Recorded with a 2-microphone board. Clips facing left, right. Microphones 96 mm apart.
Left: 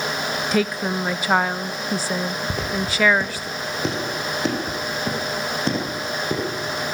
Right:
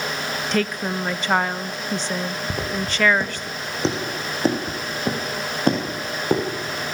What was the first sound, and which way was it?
A woman speaking, 5° left (ahead or behind).